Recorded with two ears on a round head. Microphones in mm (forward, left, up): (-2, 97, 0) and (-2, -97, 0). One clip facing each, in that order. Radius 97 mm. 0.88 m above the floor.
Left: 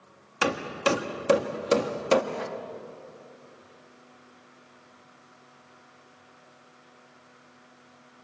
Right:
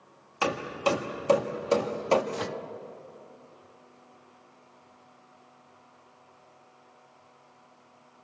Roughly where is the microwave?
Right.